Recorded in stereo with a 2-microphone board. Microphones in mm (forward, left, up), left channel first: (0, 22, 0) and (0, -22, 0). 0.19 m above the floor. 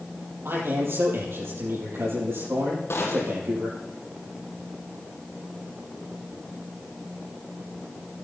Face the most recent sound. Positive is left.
turn(degrees=70)  # may be behind; listen again after turning